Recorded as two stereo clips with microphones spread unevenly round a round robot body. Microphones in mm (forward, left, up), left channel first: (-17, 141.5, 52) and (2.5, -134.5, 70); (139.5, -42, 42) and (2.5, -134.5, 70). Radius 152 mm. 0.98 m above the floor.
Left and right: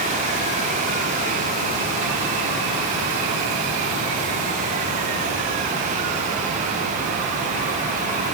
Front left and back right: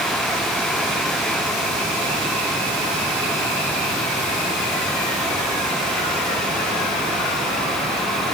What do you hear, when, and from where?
Only background noise.